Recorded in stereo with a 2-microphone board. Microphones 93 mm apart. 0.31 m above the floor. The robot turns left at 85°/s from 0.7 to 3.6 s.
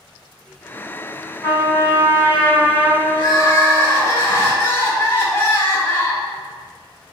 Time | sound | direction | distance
1.4 | a trumpet | 125° left | 1.2 m
3.1 | crying | 70° left | 0.6 m